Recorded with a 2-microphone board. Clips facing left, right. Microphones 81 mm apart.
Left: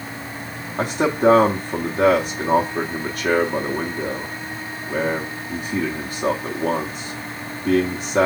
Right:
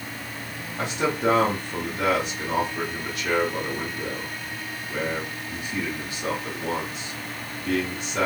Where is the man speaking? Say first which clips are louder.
Left 6 dB; 45° left (ahead or behind), 0.9 m.